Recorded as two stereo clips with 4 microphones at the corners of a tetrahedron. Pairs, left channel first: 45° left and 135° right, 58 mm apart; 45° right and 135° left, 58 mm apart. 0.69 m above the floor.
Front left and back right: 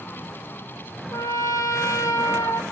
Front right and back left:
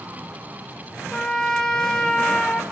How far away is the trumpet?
About 1.6 m.